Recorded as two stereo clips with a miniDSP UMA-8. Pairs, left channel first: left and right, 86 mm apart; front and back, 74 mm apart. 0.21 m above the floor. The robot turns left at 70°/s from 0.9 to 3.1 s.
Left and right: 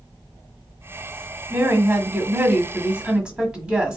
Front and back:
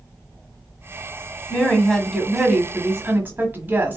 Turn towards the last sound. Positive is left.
turn(degrees=-155)